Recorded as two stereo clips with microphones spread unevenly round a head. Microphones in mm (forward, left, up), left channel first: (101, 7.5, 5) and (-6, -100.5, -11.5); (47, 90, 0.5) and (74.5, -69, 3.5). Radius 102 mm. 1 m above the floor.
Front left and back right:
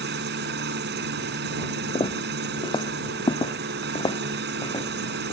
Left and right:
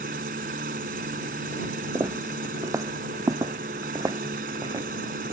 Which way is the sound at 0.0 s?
130° right.